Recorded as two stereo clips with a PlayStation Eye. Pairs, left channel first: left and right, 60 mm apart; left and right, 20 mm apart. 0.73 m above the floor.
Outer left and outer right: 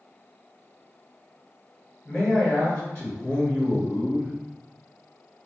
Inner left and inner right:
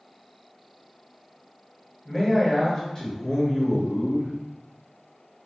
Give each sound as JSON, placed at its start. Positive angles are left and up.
{"t": 2.0, "sound": "a man speaking", "side_deg": 20, "distance_m": 1.1}